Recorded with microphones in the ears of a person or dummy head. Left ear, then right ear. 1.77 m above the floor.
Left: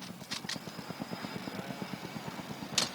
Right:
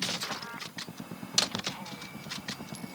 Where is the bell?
No bell in this recording.